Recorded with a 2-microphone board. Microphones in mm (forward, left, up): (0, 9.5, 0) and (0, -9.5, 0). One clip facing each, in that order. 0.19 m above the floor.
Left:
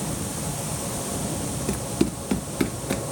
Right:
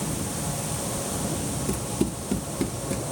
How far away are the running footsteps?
About 1.2 m.